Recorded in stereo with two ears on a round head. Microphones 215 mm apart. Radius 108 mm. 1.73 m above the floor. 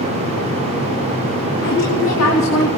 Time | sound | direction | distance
1.6 | a woman speaking | 65° left (ahead or behind) | 3 m